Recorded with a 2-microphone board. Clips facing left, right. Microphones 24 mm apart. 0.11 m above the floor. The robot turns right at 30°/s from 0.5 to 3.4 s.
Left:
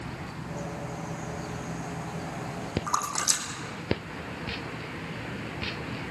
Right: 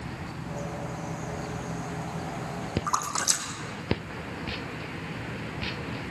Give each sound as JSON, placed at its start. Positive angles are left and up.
{"t": 2.9, "sound": "a splash", "side_deg": -20, "distance_m": 3.0}